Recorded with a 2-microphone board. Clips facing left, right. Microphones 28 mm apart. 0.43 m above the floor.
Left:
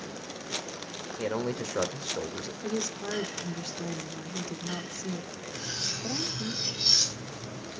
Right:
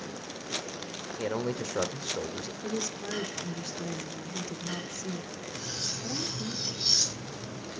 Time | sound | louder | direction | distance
1.2 | a man speaking | left 1 dB | 10° left (ahead or behind) | 1.1 m
2.6 | a woman speaking | left 2 dB | 20° left (ahead or behind) | 1.1 m
5.5 | cutlery clinking | left 2 dB | 25° left (ahead or behind) | 3.5 m